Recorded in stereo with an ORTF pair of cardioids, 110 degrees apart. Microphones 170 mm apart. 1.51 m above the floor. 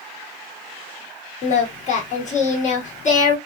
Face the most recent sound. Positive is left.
turn(degrees=45)